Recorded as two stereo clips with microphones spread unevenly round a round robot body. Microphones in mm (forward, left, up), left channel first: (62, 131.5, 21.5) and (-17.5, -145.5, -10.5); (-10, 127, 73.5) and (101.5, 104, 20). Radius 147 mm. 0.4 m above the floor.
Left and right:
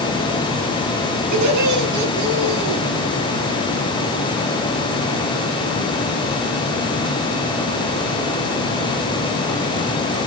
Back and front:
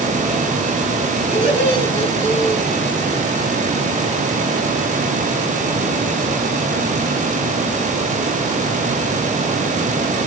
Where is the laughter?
85° right, 5 m; by 2.8 s 90° right, 4.5 m.